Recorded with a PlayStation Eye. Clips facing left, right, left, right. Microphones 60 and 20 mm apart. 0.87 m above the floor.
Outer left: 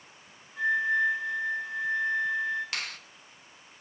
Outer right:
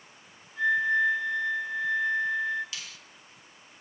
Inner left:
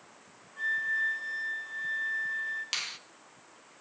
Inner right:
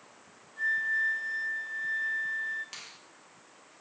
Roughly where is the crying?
I don't hear crying.